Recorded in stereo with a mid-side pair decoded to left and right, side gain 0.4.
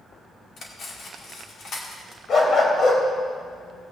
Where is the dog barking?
55° left, 2.5 m.